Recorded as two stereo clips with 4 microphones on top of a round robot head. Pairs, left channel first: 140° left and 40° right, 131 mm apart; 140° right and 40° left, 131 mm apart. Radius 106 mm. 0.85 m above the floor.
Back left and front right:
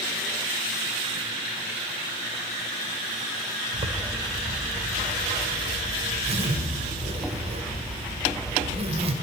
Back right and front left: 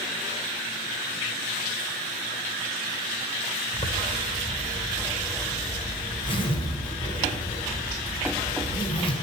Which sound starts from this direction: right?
A zipper, at 3.7 s.